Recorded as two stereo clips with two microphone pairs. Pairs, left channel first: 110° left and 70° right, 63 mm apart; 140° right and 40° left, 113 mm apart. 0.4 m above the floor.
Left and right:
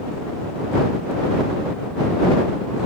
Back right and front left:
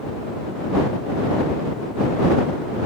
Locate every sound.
Only background noise.